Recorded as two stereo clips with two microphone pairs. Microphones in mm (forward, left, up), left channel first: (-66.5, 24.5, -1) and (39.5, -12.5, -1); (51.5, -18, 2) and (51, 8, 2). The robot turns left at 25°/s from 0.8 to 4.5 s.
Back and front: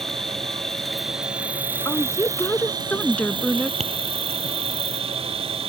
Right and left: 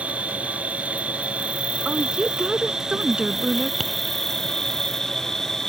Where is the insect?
75° left; by 5.7 s 20° right.